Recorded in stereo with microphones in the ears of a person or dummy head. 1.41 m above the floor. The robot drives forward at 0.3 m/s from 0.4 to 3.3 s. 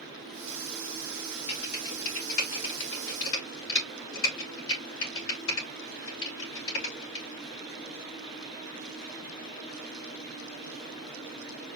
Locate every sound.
1.5 s typing on a keyboard: 85° left, 3.5 m; by 7.2 s 75° left (ahead or behind), 3.5 m